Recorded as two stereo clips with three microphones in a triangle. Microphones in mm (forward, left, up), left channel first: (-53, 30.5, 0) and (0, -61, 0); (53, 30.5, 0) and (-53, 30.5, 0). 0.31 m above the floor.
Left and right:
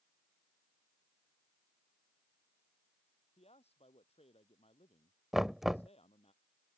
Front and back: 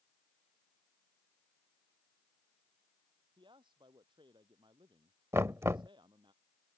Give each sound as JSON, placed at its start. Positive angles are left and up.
{"t": 3.4, "sound": "a man speaking", "azimuth_deg": 135}
{"t": 5.3, "sound": "knocking", "azimuth_deg": -145}